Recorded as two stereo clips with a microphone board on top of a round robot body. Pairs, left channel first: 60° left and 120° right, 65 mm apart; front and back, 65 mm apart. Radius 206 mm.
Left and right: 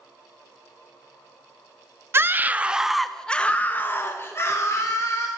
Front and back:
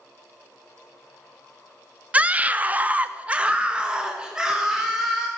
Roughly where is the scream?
Behind right.